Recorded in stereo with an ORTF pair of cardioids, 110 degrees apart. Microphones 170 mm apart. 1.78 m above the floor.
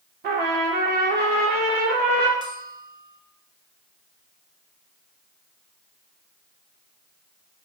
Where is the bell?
25° right, 1.1 m.